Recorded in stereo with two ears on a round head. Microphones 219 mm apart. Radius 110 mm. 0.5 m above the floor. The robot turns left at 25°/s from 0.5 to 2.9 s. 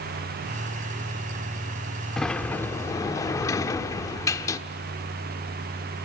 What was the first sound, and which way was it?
A sliding door, centre (ahead or behind).